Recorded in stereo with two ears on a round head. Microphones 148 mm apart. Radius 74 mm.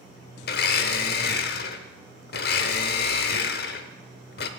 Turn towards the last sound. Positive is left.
turn(degrees=60)  # may be behind; listen again after turning